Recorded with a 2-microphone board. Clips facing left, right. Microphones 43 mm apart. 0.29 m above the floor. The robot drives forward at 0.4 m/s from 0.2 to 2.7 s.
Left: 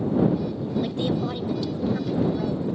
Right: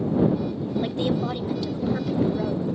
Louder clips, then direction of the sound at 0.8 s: Right 2 dB; 20° right (ahead or behind).